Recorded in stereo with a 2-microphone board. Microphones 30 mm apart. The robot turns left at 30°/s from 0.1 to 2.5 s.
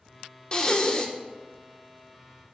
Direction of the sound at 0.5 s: 30° left (ahead or behind).